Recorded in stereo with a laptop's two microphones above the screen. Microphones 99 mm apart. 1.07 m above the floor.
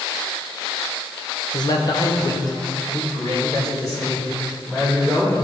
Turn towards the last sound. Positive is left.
turn(degrees=35)  # may be behind; listen again after turning